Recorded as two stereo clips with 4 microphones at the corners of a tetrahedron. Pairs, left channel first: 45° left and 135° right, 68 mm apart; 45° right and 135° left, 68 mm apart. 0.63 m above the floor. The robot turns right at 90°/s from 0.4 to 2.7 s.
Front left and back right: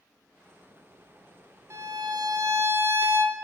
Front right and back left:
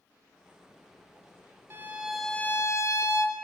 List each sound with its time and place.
1.7 s a violin: 175° right, 1.0 m; by 3.4 s 85° right, 1.0 m